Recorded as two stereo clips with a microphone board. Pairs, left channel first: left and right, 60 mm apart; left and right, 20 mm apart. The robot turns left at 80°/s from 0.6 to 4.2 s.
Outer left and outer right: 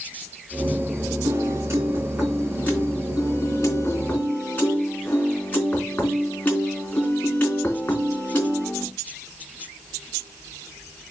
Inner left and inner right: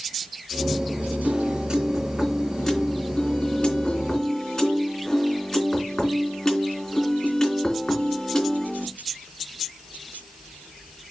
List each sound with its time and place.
1.2 s a piano: 95° right, 3.5 m; by 8.9 s 30° left, 3.5 m